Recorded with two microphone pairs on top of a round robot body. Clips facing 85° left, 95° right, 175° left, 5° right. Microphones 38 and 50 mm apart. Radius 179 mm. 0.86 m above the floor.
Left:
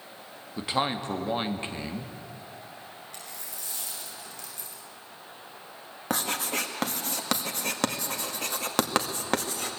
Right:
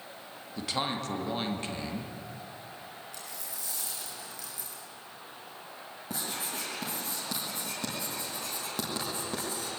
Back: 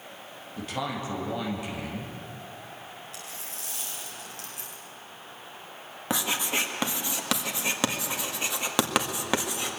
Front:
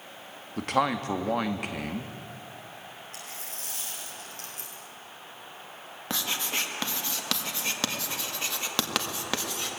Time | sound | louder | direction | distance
0.6 | a man speaking | left 4 dB, front 6 dB | 20° left | 2.5 m
3.1 | a dropped coin | left 1 dB, even | 45° left | 8 m
6.1 | writing | left 8 dB, back 3 dB | 100° left | 2 m